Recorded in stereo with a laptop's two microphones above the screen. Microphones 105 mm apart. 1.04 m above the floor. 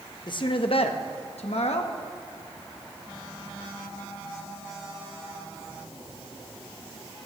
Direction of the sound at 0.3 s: 45° left (ahead or behind).